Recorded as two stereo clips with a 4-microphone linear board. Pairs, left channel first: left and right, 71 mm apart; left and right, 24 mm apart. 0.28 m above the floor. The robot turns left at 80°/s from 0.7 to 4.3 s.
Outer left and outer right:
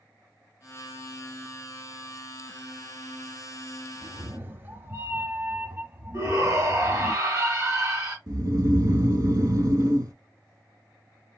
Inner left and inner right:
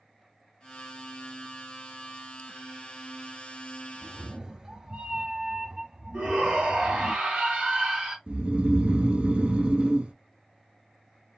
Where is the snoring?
60° right (ahead or behind), 0.6 m.